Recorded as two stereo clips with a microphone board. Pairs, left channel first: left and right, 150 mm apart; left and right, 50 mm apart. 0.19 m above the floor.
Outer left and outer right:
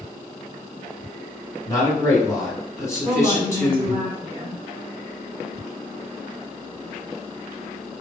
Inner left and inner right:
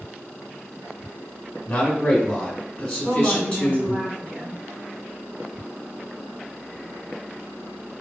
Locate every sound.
1.7 s a man speaking: 20° left (ahead or behind), 1.3 m
3.0 s a woman speaking: 30° right (ahead or behind), 1.4 m